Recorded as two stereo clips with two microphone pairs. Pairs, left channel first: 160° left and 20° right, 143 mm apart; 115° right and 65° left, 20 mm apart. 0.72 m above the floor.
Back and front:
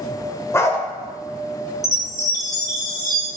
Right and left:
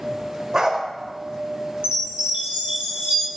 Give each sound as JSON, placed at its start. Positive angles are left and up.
{"t": 0.5, "sound": "a dog barking", "azimuth_deg": 100, "distance_m": 0.5}
{"t": 1.8, "sound": "a chime", "azimuth_deg": 95, "distance_m": 1.0}